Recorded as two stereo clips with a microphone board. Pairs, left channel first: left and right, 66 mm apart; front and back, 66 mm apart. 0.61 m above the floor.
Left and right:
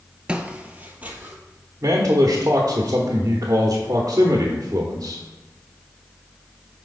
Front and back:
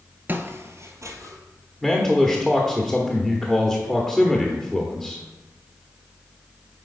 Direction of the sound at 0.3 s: 150° right.